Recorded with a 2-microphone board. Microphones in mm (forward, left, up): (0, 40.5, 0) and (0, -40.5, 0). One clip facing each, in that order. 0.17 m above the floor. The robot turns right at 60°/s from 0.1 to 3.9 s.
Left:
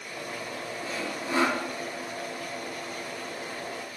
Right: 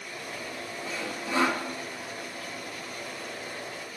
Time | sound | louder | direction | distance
0.8 | sawing | left 1 dB | 120° left | 3.5 m